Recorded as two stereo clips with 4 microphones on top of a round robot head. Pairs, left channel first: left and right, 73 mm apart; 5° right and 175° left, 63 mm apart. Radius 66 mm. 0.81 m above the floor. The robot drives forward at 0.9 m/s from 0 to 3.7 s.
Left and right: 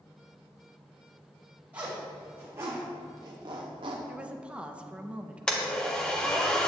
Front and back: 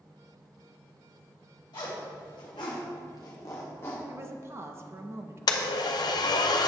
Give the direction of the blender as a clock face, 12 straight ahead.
12 o'clock.